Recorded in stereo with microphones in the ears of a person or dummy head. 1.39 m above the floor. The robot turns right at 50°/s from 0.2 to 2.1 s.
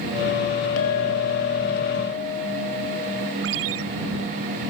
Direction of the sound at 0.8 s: 85° left.